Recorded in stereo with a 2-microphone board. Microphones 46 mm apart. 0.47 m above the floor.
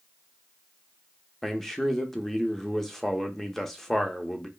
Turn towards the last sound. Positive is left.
turn(degrees=5)  # may be behind; listen again after turning